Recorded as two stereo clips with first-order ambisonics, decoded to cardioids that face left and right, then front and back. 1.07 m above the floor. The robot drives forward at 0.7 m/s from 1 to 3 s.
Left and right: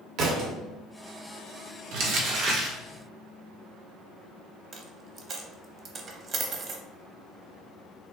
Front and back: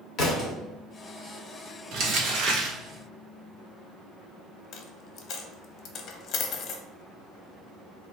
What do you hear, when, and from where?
0.2 s a thud: 50° right, 1.4 m
1.9 s crumpling: 125° right, 1.2 m; by 2.8 s 145° right, 1.6 m
4.7 s a dropped coin: 40° right, 0.6 m